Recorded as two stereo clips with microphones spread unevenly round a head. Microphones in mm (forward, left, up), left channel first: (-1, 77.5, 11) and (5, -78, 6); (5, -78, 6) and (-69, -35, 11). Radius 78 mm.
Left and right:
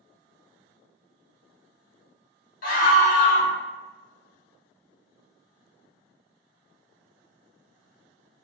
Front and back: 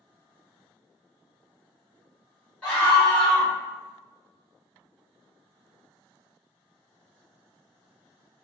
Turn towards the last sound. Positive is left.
turn(degrees=55)